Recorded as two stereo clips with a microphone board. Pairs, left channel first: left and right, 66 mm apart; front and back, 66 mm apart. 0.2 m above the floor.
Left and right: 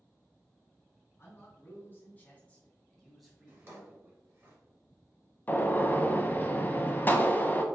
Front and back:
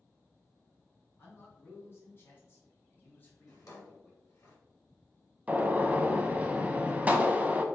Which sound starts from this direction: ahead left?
A man speaking, at 1.2 s.